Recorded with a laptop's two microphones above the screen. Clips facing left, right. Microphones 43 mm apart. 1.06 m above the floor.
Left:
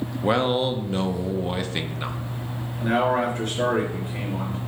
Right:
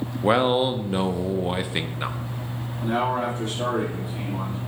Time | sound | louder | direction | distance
0.2 | a man speaking | right 2 dB | 15° right (ahead or behind) | 0.6 m
2.8 | a man speaking | left 3 dB | 85° left | 3 m